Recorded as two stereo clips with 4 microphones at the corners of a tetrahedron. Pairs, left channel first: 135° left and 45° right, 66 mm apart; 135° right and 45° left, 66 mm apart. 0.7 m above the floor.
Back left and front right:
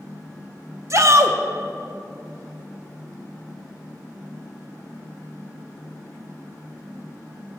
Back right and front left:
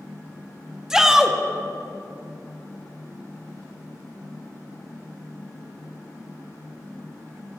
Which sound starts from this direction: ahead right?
A shout, at 0.9 s.